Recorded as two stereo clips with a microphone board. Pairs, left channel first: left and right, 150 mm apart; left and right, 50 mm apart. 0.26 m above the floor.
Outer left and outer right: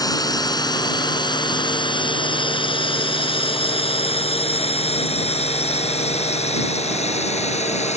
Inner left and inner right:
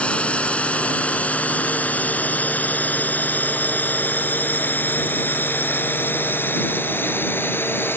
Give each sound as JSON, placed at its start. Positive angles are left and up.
{"t": 0.0, "sound": "a drone", "side_deg": 25}